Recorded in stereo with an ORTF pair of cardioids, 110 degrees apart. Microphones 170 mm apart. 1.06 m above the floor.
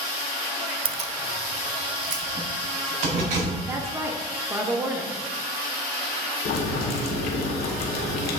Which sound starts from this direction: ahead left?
Boiling, at 6.5 s.